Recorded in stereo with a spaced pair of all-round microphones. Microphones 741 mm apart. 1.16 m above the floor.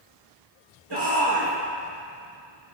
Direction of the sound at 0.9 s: 30° right (ahead or behind).